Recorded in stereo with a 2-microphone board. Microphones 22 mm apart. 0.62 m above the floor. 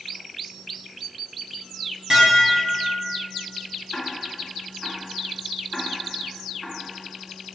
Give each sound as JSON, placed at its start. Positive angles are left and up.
{"t": 2.1, "sound": "dishes clattering", "side_deg": -30, "distance_m": 3.5}
{"t": 3.9, "sound": "ticking", "side_deg": 0, "distance_m": 3.5}